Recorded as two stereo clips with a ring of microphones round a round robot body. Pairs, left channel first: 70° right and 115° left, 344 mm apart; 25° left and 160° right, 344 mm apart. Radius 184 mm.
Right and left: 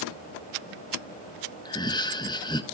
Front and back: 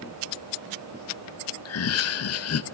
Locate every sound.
1.6 s laughter: 5° left, 0.7 m